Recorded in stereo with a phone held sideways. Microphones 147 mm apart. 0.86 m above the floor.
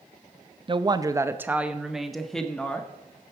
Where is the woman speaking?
35° right (ahead or behind), 0.6 m; by 2.9 s 10° left (ahead or behind), 1.4 m.